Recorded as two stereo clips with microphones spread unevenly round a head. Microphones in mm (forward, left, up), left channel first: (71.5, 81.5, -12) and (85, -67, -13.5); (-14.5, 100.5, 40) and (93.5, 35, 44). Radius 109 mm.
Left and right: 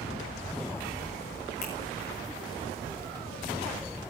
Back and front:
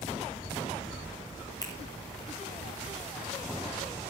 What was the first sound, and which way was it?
A finger snap, 90° left.